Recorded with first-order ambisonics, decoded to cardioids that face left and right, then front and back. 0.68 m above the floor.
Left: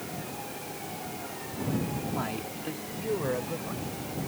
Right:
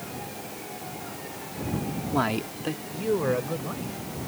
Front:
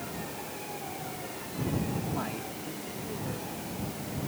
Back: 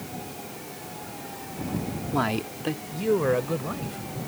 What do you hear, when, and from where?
2.1 s a man speaking: 135° right; by 4.2 s 170° right